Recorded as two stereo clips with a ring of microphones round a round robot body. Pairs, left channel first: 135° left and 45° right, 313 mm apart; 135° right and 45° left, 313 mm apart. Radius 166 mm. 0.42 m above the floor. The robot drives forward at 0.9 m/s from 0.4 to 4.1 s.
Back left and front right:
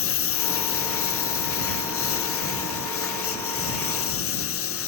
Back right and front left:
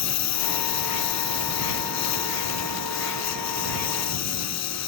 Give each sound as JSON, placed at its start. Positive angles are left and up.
{"t": 0.0, "sound": "a lawn mower", "azimuth_deg": -175}